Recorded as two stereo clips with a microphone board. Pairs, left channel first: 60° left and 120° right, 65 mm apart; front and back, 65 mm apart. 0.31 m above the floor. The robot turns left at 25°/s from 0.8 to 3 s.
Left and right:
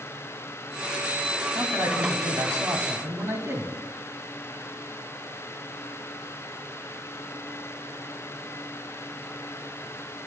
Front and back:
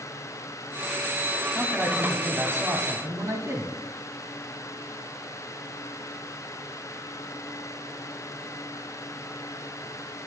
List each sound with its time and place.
1.6 s a man speaking: 120° right, 2.5 m; by 3.8 s 155° right, 2.5 m